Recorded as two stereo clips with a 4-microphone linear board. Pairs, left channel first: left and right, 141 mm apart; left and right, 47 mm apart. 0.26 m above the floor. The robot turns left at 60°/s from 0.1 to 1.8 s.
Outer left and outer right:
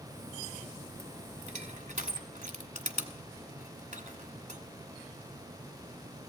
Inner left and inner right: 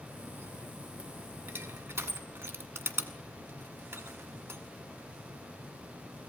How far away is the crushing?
About 1.3 m.